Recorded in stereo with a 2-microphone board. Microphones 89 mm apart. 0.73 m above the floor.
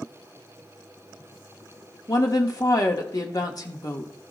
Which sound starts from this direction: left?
A woman speaking, at 2.1 s.